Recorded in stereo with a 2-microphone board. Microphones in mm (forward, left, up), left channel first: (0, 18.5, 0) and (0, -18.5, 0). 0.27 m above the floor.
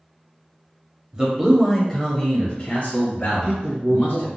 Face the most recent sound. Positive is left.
turn(degrees=-25)  # may be behind; listen again after turning